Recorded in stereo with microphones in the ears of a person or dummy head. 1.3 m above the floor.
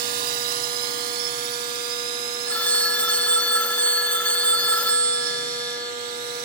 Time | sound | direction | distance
0.0 | a drone | 50° right (ahead or behind) | ?
2.5 | a phone ringing | 10° left (ahead or behind) | ?